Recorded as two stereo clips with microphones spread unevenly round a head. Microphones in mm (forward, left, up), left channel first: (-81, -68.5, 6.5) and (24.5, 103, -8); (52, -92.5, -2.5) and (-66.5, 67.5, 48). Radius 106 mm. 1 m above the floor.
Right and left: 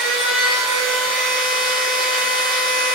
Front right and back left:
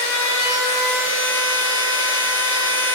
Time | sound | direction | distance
0.0 | a machine running | 30° right | 1.2 m